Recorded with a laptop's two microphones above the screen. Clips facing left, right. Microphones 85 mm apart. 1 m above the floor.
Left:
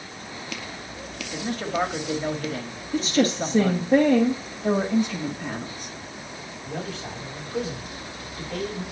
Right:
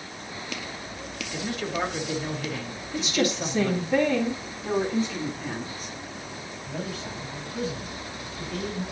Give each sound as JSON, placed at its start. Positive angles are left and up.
{"t": 1.3, "sound": "a man speaking", "side_deg": 40, "distance_m": 1.9}
{"t": 2.9, "sound": "a woman speaking", "side_deg": 45, "distance_m": 2.0}
{"t": 4.6, "sound": "a woman speaking", "side_deg": 65, "distance_m": 6.5}
{"t": 6.7, "sound": "a man speaking", "side_deg": 75, "distance_m": 7.0}